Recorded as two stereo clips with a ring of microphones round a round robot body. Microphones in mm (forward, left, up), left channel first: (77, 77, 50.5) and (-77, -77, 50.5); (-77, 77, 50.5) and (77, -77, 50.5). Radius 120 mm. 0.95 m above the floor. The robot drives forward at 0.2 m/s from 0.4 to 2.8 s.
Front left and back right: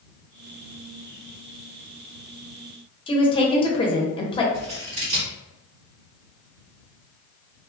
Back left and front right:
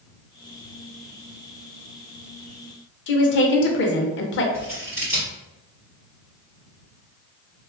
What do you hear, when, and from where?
3.1 s a woman speaking: 110° left, 0.6 m
4.5 s scissors: 125° right, 1.8 m